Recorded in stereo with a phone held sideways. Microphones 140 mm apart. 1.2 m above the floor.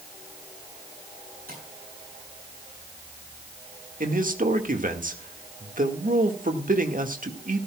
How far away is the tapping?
About 8.5 m.